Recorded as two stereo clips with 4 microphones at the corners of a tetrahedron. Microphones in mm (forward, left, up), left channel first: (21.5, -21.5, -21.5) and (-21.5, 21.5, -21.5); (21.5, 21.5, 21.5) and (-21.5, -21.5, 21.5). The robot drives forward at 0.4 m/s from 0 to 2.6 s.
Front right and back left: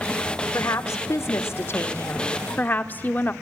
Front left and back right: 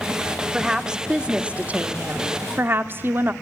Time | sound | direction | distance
0.5 | a woman speaking | 55° right | 1.5 m